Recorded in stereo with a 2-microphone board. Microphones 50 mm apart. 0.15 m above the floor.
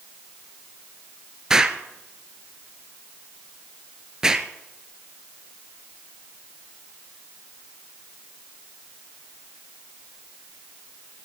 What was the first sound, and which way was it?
An explosion, 10° right (ahead or behind).